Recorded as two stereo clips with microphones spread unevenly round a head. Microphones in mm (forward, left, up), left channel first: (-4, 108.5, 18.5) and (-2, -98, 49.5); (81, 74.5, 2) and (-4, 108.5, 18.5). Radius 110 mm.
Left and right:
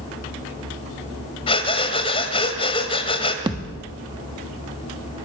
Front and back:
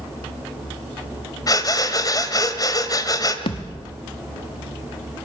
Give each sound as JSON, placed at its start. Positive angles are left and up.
{"t": 1.5, "sound": "breathing", "azimuth_deg": 20, "distance_m": 1.9}
{"t": 3.5, "sound": "a thud", "azimuth_deg": -30, "distance_m": 1.4}